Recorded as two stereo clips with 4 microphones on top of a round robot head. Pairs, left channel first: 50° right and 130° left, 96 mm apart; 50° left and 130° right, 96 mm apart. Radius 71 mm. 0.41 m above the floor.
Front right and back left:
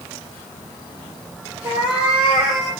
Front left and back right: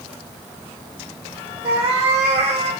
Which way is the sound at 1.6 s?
150° right.